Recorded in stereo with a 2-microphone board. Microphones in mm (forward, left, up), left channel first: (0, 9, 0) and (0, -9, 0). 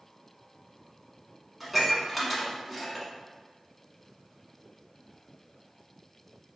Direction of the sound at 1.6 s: Centre (ahead or behind).